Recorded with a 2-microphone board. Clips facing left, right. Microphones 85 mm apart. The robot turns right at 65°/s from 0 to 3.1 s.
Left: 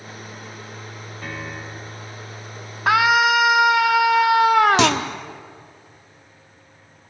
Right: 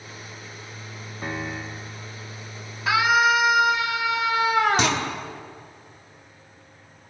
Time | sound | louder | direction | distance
1.2 | a piano | right 2 dB | 25° right | 1.5 m
2.9 | a scream | left 3 dB | 50° left (ahead or behind) | 2.5 m
4.8 | a clunk | left 5 dB | 80° left | 1.7 m